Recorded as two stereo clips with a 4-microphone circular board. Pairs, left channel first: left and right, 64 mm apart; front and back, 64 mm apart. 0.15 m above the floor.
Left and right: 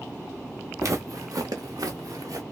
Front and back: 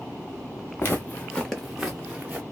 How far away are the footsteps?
About 1.0 m.